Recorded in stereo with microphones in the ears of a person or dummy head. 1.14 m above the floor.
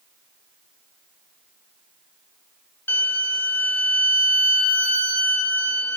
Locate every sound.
2.9 s a violin: 15° left (ahead or behind), 1.6 m